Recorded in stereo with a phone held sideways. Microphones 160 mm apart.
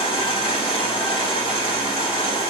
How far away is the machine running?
About 2.5 m.